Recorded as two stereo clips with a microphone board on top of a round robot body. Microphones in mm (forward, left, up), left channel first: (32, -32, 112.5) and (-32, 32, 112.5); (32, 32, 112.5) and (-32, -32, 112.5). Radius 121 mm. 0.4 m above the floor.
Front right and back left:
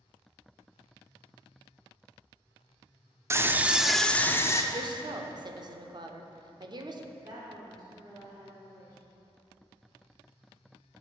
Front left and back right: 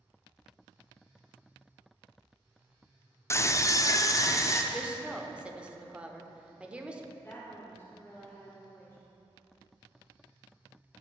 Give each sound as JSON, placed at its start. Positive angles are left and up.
{"t": 3.3, "sound": "a scream", "azimuth_deg": 90, "distance_m": 1.0}
{"t": 4.7, "sound": "a woman speaking", "azimuth_deg": 150, "distance_m": 1.2}
{"t": 7.1, "sound": "a woman speaking", "azimuth_deg": 105, "distance_m": 2.0}